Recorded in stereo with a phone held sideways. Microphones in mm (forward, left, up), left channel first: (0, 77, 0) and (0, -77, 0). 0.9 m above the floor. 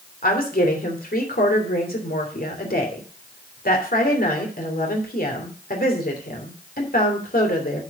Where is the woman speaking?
70° left (ahead or behind), 3 m.